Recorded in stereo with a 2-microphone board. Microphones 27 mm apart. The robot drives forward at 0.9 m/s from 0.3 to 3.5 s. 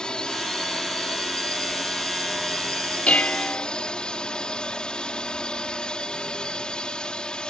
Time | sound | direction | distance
0.0 | a drone | 30° left (ahead or behind) | ?
3.1 | dishes clattering | 50° left (ahead or behind) | ?